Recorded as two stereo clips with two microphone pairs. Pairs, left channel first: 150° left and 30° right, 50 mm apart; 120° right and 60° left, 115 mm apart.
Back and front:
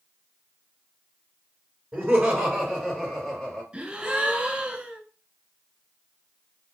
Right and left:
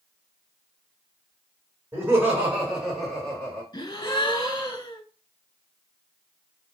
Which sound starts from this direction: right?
A gasp, at 3.7 s.